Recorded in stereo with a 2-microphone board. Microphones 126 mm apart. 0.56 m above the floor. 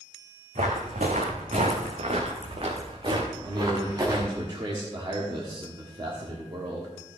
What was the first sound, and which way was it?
Footsteps, 75° right (ahead or behind).